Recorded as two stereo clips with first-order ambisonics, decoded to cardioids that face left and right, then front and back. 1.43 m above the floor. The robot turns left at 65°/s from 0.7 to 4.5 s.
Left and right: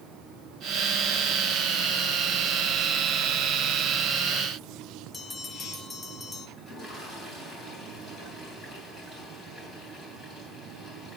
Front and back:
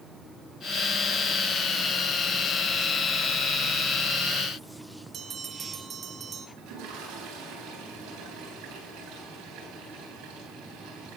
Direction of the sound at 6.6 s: 160° left.